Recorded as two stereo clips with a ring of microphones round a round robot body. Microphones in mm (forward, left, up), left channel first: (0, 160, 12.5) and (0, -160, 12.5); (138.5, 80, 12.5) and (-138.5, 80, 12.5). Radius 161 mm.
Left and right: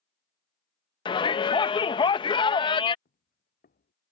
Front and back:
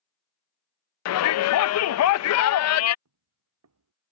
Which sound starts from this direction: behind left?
Footsteps, at 3.0 s.